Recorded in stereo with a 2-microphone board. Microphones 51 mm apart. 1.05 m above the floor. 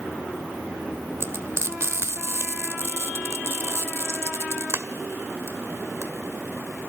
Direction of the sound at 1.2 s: 65° right (ahead or behind).